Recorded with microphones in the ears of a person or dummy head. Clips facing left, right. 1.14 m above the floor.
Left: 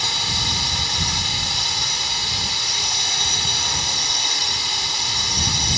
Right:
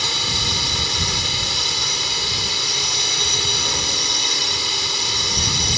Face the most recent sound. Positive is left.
turn(degrees=-65)  # may be behind; listen again after turning